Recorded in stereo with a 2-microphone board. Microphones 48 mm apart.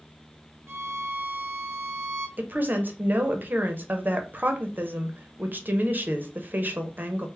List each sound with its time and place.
0.7 s a violin: 65° right (ahead or behind), 0.6 m
2.4 s a woman speaking: 40° right (ahead or behind), 0.6 m